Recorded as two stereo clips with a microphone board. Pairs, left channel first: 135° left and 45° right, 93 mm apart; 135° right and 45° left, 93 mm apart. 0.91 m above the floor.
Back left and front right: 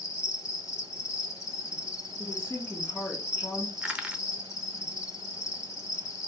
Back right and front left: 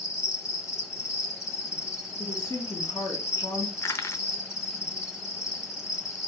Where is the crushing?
110° right, 0.6 m.